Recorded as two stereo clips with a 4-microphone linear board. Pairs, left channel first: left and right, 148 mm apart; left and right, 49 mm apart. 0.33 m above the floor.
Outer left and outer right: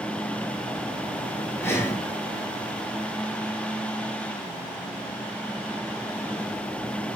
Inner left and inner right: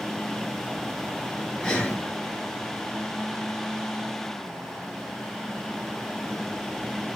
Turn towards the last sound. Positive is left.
turn(degrees=20)  # may be behind; listen again after turning